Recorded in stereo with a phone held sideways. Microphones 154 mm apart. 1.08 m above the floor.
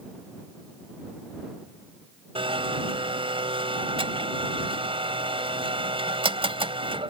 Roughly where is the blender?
Right.